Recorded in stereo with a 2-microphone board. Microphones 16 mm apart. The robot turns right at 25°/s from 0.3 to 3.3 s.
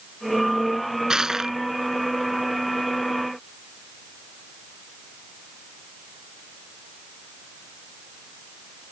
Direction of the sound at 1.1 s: 40° right (ahead or behind).